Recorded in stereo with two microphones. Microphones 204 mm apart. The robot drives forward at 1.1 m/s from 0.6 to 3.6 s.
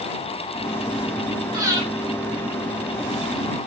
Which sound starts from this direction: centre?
Breathing, at 1.5 s.